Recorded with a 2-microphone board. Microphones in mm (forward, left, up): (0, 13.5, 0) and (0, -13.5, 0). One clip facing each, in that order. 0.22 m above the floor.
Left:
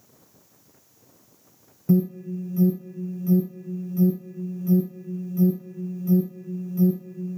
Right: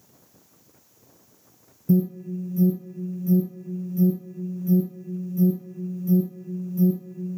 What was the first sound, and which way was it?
An alarm, 35° left (ahead or behind).